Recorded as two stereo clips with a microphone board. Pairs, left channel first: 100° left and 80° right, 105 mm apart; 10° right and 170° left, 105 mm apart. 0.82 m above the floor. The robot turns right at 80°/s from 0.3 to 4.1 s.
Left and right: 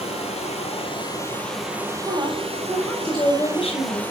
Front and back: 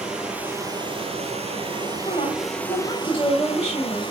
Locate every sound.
0.0 s running water: 90° left, 3.5 m; by 4.1 s 30° left, 3.5 m
2.0 s a woman speaking: 50° right, 4 m; by 4.0 s 110° left, 4 m